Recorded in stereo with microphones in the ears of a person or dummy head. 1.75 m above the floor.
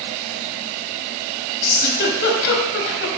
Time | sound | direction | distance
1.6 | a giggle | 55° left (ahead or behind) | 1.4 m